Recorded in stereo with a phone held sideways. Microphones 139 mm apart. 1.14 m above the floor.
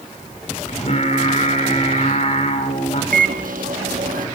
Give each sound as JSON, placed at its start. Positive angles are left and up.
{"t": 0.7, "sound": "singing", "side_deg": 55, "distance_m": 4.0}
{"t": 3.1, "sound": "a microwave", "side_deg": -80, "distance_m": 1.7}